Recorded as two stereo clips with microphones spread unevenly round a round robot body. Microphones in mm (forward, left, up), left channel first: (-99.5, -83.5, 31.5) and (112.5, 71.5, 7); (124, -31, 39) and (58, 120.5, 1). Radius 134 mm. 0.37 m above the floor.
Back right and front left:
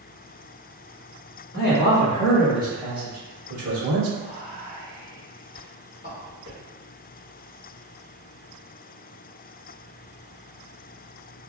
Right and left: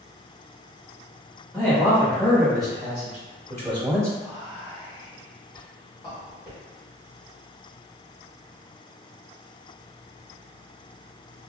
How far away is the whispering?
About 1.1 m.